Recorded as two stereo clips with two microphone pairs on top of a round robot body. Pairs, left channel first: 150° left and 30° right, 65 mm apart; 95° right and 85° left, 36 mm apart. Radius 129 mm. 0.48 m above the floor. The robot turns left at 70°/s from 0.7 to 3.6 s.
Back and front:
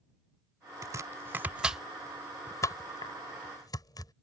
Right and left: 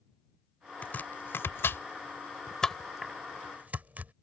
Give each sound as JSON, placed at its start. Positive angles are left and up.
{"t": 0.8, "sound": "chopping", "azimuth_deg": -40}